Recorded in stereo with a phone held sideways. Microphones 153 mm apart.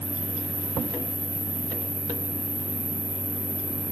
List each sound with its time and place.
0.0 s an insect: 75° right (ahead or behind), 1.8 m